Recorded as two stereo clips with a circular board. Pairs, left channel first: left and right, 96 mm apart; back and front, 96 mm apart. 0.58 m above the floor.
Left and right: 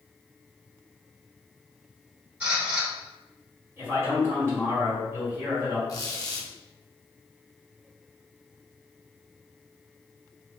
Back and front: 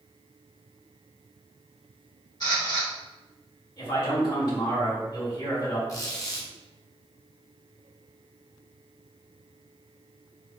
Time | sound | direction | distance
2.4 | a camera shutter | 160° right | 1.7 m
3.8 | a man speaking | 150° right | 2.0 m
5.9 | a squeak | 135° left | 0.7 m